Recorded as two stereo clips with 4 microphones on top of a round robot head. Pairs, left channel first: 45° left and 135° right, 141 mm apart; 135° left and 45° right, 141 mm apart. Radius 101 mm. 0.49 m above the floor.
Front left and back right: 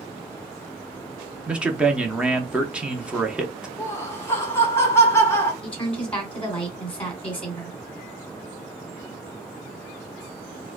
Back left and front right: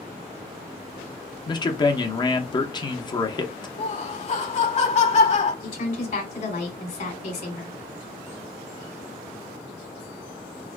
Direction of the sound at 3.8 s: 110° left.